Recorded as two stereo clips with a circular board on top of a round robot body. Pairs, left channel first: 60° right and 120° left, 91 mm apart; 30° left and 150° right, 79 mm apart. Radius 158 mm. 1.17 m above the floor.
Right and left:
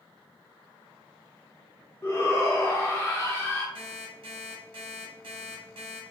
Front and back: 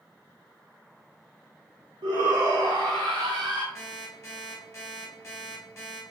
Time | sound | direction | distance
2.0 | a shout | 120° right | 1.0 m
3.8 | an alarm clock | 90° left | 0.9 m